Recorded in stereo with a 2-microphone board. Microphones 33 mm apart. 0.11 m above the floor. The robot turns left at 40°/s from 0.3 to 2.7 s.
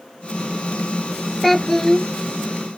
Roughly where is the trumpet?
No trumpet in this recording.